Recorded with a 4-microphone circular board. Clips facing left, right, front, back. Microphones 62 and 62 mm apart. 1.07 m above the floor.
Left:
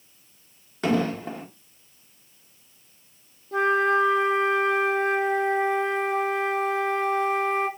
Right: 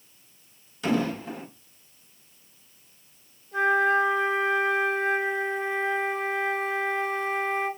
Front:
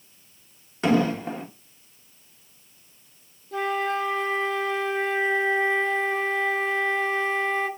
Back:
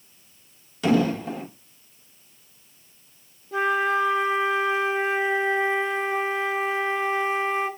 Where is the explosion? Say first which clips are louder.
Left 2 dB, even; 50° left, 1.2 m.